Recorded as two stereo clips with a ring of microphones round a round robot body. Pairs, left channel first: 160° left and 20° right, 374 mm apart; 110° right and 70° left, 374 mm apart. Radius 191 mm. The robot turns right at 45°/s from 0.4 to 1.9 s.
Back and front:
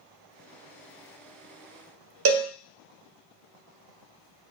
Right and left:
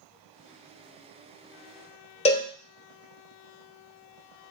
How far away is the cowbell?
About 0.5 m.